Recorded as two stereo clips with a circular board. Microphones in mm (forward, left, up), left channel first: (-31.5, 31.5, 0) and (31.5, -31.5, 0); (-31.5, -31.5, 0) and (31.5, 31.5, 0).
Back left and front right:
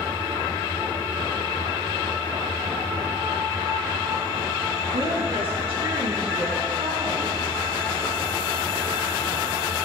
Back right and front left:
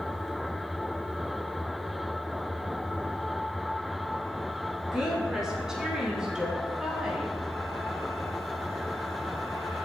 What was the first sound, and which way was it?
A woman speaking, 40° right.